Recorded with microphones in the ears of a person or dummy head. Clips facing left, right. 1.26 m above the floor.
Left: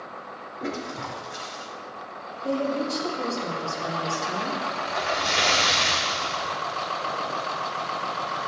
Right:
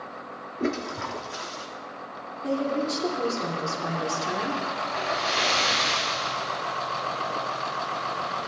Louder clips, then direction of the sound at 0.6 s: Right 4 dB; 45° right (ahead or behind).